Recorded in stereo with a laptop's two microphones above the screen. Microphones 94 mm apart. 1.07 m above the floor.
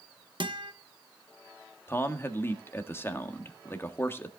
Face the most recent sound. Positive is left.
turn(degrees=25)  # may be behind; listen again after turning